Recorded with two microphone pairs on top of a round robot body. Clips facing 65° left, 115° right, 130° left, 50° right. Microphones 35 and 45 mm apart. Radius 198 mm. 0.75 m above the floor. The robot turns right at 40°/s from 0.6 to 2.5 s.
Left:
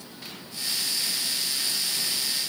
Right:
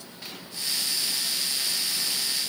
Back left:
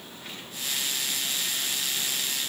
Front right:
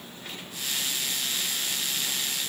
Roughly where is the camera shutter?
I don't hear a camera shutter.